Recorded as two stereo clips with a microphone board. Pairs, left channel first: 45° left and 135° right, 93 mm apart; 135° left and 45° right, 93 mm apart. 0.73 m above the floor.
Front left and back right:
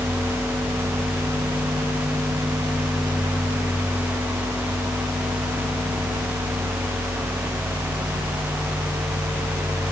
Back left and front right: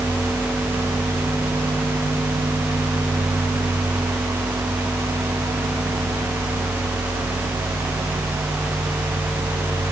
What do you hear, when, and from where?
Only background noise.